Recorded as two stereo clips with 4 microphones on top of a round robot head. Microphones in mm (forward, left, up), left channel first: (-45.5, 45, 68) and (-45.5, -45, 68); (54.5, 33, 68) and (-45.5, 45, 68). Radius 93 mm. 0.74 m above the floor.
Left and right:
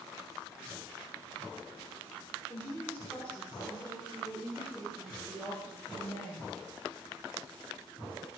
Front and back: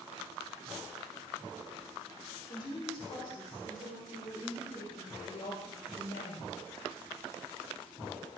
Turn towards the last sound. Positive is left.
turn(degrees=-10)